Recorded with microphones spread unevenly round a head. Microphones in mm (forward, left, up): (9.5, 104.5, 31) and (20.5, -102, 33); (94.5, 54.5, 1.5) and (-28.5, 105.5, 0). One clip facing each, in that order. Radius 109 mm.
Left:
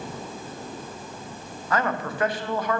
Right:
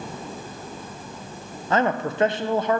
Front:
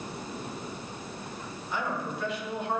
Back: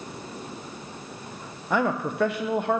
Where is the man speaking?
155° right, 0.7 m.